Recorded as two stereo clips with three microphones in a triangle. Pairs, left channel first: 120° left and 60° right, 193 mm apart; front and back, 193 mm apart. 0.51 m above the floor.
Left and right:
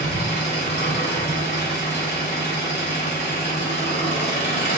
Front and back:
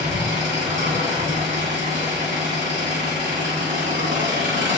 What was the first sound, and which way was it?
An engine running, 175° left.